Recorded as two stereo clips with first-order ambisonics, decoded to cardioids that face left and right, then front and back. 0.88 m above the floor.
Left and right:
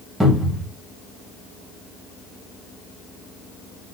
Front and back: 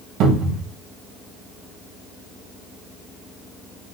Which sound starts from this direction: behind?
A cupboard door, at 0.2 s.